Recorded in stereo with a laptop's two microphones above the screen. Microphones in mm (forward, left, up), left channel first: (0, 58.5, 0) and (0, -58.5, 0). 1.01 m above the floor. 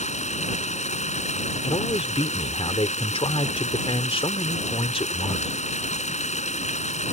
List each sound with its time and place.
0.0 s running water: 85° left
1.6 s a man speaking: 55° left (ahead or behind)